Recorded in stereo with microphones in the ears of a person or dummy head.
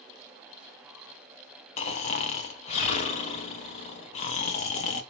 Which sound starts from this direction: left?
Snoring, at 1.8 s.